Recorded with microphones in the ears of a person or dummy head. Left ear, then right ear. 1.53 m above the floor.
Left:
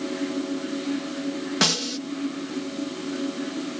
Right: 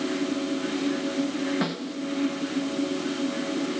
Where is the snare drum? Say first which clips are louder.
Left 8 dB; 80° left.